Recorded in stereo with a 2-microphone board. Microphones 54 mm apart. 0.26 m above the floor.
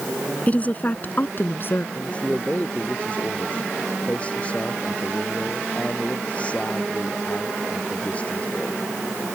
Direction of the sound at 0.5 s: 25° left (ahead or behind).